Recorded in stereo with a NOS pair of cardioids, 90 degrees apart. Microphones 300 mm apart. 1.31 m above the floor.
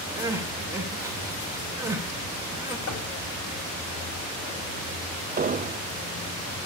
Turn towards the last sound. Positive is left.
turn(degrees=-25)